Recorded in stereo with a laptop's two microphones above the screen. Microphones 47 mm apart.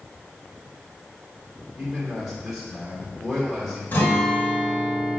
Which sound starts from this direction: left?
A guitar, at 3.9 s.